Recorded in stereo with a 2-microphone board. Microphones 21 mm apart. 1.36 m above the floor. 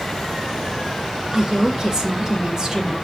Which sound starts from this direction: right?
A woman speaking, at 1.3 s.